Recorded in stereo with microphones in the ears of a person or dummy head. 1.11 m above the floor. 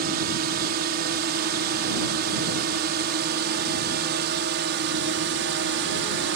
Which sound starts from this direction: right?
A drone, at 0.0 s.